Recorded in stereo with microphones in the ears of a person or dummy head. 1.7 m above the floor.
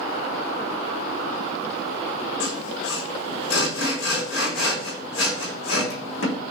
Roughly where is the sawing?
Left.